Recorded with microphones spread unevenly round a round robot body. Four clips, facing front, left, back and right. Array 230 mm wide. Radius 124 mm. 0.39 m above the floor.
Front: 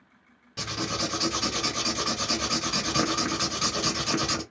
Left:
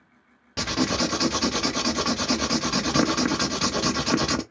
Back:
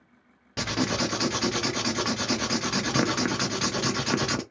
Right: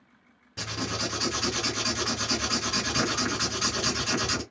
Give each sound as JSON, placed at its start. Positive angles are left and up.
{"t": 0.6, "sound": "writing", "azimuth_deg": 110, "distance_m": 0.7}